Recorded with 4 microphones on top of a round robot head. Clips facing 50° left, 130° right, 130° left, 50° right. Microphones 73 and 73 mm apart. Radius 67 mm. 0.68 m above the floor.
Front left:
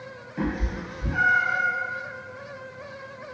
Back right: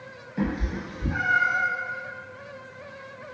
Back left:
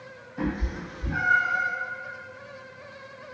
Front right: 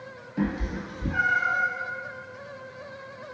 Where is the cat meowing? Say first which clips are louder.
Even, front right 2 dB; 50° right, 1.8 m; by 1.7 s 80° right, 2 m.